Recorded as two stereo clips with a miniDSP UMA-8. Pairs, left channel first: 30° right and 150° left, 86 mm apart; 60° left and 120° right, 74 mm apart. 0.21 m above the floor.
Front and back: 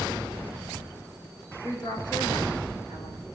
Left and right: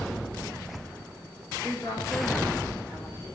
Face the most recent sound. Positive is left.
turn(degrees=5)